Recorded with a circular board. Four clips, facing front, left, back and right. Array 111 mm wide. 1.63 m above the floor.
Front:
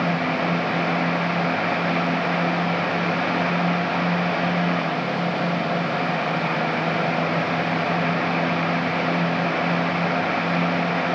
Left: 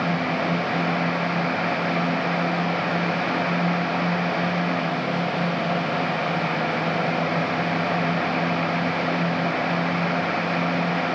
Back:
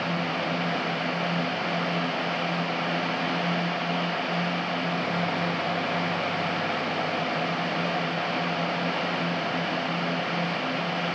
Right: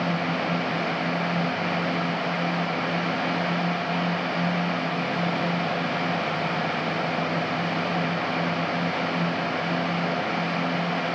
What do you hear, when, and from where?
Only background noise.